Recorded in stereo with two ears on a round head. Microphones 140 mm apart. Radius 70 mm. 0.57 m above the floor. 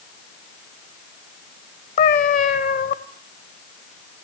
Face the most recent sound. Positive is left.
turn(degrees=50)  # may be behind; listen again after turning